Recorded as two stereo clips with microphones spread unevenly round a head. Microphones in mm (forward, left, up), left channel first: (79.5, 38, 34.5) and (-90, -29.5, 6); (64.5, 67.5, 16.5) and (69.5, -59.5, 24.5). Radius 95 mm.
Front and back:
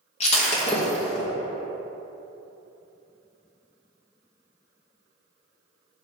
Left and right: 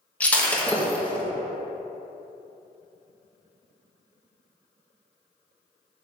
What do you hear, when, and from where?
0.2 s breaking glass: 15° left, 1.0 m